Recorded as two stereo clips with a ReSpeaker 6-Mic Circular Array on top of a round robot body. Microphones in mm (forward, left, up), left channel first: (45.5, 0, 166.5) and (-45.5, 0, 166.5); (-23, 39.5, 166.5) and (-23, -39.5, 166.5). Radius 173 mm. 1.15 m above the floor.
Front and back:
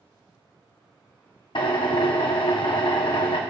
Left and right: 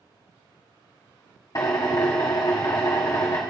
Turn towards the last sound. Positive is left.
turn(degrees=40)